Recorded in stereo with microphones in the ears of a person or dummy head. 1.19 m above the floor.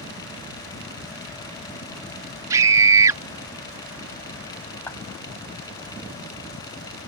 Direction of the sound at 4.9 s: 15° left (ahead or behind).